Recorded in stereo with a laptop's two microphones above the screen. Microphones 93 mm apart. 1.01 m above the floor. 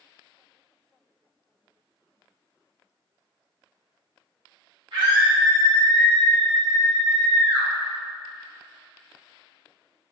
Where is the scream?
70° right (ahead or behind), 1.6 m; by 7.7 s 60° right (ahead or behind), 3 m.